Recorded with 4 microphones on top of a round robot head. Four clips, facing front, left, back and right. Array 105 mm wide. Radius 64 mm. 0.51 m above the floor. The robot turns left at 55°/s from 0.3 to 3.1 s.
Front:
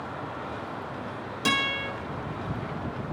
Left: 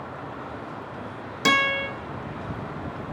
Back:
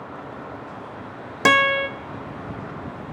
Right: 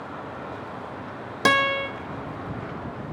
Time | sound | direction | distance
1.4 | a guitar | 145° right | 1.1 m